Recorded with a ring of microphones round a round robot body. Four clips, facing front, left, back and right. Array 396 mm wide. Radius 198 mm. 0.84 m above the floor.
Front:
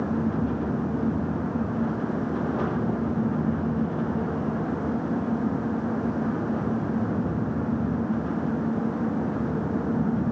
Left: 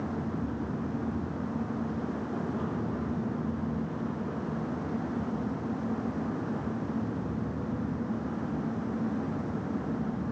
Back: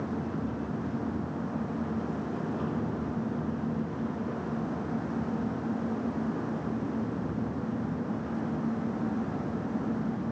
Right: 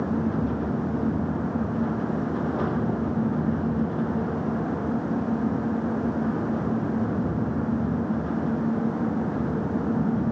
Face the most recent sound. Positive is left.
No sound to turn to.